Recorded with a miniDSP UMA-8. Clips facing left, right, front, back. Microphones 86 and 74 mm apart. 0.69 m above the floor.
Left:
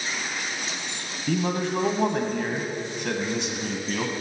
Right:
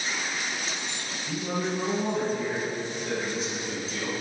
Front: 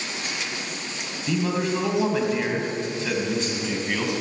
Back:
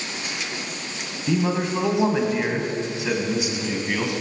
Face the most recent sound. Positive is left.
turn(degrees=95)